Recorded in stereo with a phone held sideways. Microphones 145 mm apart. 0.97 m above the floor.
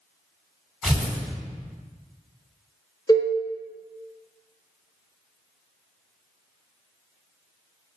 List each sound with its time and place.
0.8 s tearing paper: centre (ahead or behind), 2.5 m
3.1 s a cowbell: 25° left (ahead or behind), 1.3 m